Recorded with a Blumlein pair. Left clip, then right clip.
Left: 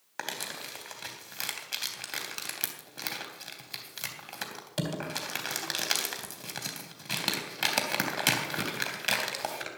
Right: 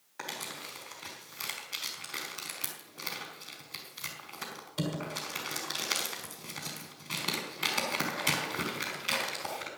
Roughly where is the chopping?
I don't hear chopping.